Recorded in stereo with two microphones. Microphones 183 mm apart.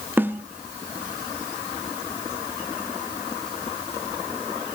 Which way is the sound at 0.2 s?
10° right (ahead or behind).